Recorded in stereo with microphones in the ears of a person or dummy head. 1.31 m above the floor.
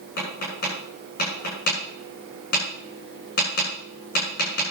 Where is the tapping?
60° left (ahead or behind), 7.5 m.